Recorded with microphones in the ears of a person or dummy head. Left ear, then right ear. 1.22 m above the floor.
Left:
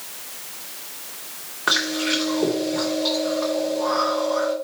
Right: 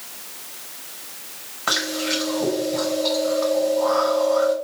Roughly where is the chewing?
Centre.